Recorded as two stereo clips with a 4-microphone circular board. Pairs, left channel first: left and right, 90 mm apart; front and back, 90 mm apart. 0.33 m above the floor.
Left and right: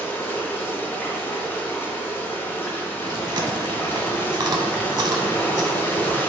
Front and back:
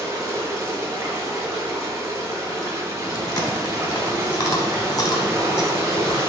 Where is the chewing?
50° right, 0.5 m.